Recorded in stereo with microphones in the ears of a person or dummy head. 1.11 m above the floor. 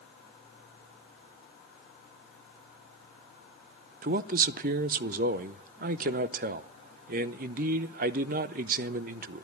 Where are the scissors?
I don't hear scissors.